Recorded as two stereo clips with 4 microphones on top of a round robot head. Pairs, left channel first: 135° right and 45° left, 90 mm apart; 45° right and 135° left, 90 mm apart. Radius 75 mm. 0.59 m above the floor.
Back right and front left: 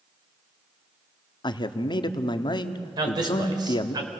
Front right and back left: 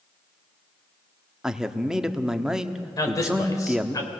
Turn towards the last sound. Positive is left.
turn(degrees=5)